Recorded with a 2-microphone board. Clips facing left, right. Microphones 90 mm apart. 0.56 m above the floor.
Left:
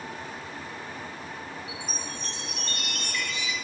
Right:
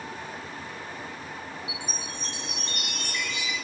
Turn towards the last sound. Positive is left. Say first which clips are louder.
# even
turn(degrees=-20)  # may be behind; listen again after turning